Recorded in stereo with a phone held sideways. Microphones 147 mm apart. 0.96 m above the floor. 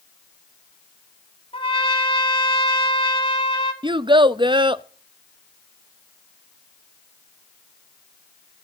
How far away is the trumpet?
About 2.5 m.